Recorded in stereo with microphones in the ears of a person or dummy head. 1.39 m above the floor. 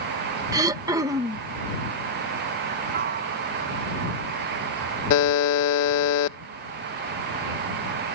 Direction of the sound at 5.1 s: 70° left (ahead or behind).